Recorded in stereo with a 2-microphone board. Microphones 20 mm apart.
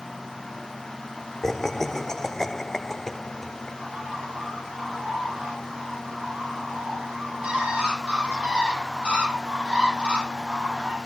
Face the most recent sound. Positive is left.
turn(degrees=-80)